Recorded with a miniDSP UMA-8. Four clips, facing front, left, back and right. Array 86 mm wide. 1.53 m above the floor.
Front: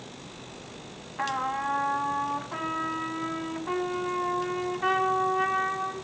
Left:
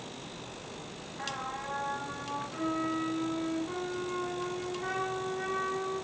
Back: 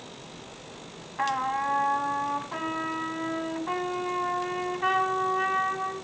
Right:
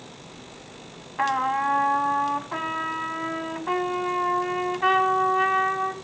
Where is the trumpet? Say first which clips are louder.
Right 15 dB, back 2 dB; 90° right, 1.0 m.